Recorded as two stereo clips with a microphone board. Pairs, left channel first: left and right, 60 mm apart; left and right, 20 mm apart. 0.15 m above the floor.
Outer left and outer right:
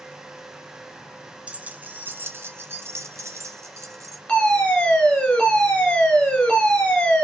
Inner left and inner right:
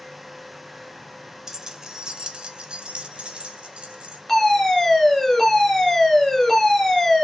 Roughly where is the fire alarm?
Centre.